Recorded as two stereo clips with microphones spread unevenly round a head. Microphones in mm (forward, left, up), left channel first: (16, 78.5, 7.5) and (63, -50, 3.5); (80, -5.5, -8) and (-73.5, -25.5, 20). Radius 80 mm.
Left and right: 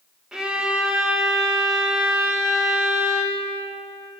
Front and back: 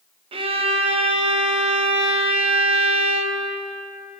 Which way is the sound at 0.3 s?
145° right.